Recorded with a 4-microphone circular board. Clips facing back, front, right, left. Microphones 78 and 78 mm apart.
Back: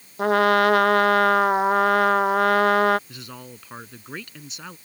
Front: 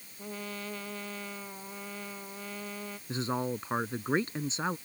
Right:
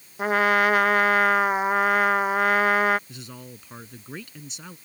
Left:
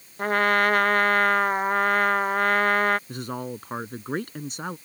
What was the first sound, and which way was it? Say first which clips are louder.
A trumpet: back 23 dB, right 1 dB; 175° right.